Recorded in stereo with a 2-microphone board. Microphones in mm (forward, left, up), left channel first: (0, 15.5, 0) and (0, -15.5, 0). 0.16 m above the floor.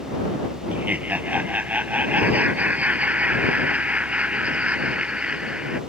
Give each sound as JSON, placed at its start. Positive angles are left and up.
{"t": 0.7, "sound": "laughter", "side_deg": -70}